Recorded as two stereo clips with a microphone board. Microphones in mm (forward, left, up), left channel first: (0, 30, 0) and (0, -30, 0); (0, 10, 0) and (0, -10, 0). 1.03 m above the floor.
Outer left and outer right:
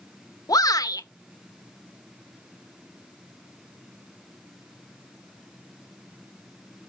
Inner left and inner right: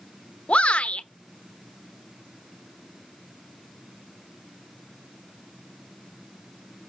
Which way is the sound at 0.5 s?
75° left (ahead or behind).